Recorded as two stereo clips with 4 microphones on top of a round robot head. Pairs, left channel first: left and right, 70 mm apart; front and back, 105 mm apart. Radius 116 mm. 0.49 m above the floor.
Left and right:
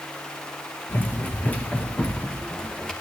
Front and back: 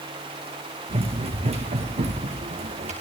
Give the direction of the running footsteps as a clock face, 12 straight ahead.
7 o'clock.